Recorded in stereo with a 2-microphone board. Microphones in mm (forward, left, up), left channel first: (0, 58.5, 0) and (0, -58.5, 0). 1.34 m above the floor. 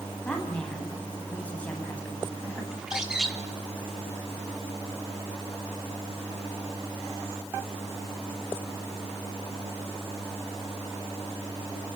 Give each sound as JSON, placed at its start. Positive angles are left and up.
{"t": 0.2, "sound": "a woman speaking", "side_deg": 10, "distance_m": 9.5}
{"t": 2.7, "sound": "a bird", "side_deg": -5, "distance_m": 3.0}